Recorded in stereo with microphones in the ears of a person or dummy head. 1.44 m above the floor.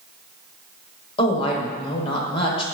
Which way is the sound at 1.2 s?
35° left (ahead or behind).